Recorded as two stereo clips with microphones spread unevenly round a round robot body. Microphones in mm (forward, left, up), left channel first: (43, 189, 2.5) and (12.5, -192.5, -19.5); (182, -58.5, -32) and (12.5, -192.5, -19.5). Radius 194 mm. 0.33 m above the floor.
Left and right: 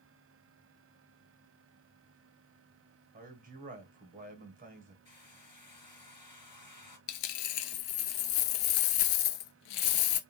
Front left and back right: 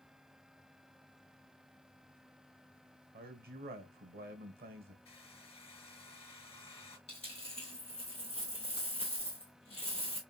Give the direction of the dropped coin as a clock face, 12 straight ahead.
8 o'clock.